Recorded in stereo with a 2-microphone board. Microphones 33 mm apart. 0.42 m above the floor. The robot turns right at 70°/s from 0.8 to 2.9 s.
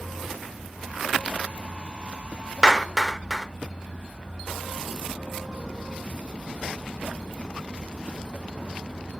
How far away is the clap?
About 0.7 m.